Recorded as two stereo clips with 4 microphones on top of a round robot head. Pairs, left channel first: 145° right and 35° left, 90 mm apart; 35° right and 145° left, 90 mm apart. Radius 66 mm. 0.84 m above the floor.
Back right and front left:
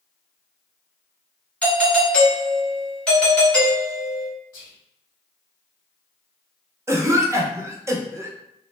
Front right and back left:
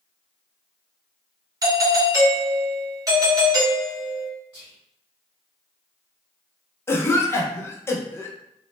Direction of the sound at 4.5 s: 120° right.